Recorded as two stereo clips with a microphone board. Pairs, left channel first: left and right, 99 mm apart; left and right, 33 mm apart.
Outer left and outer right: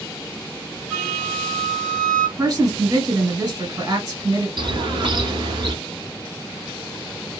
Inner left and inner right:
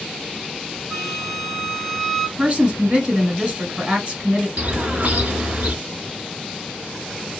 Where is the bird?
50° right (ahead or behind), 0.9 m.